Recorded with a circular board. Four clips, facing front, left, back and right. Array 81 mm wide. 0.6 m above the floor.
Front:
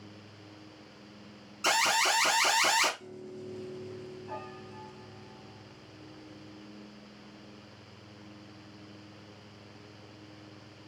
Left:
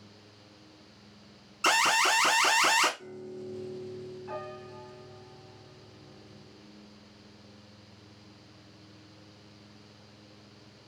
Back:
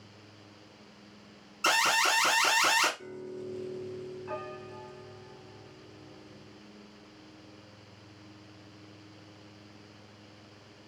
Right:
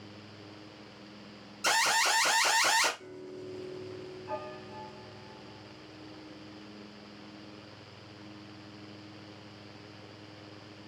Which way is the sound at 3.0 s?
Straight behind.